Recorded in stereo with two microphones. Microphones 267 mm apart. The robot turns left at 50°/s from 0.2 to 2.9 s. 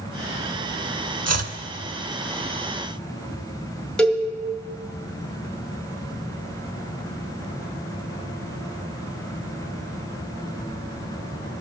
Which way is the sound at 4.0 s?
5° left (ahead or behind).